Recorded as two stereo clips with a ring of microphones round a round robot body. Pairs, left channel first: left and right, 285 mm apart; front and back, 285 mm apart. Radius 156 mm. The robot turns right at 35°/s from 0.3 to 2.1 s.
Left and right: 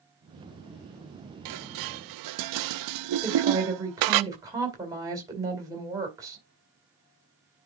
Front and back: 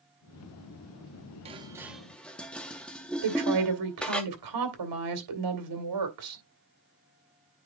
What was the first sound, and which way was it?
Dishes clattering, 110° right.